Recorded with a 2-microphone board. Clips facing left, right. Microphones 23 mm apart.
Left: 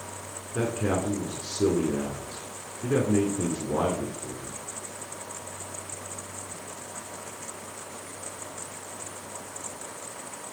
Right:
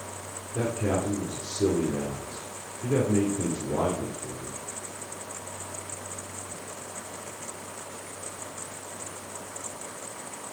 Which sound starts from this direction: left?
A man speaking, at 0.6 s.